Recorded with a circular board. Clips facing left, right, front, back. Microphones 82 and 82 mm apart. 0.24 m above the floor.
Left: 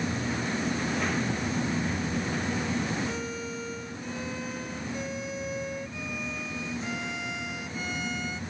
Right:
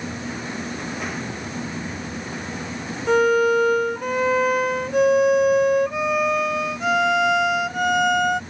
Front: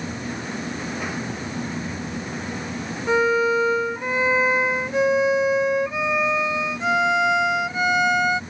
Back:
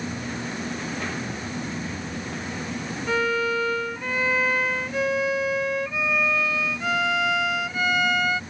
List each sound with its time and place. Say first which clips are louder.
3.1 s a violin: right 18 dB, front 5 dB; 70° right